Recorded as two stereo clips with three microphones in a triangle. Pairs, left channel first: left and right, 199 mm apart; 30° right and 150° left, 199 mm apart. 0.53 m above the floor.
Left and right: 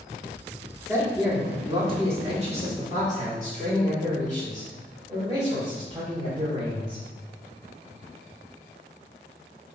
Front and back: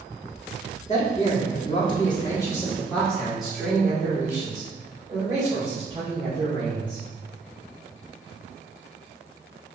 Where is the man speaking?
25° right, 1.4 m; by 7.0 s 145° right, 3 m.